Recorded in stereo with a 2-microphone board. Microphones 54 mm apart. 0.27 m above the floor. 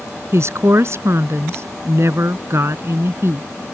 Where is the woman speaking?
55° right (ahead or behind).